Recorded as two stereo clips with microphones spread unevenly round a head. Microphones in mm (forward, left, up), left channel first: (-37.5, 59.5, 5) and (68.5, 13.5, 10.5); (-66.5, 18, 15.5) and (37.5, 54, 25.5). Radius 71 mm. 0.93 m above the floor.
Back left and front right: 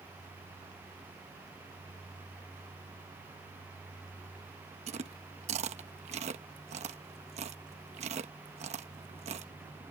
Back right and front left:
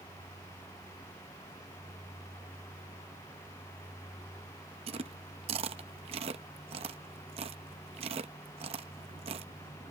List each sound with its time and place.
4.9 s chewing: 15° right